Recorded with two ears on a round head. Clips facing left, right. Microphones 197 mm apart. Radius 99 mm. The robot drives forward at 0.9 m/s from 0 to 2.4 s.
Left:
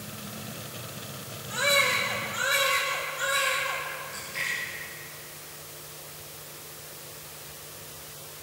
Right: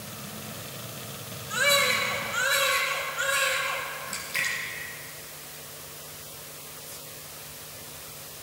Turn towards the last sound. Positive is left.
turn(degrees=-75)  # may be behind; listen again after turning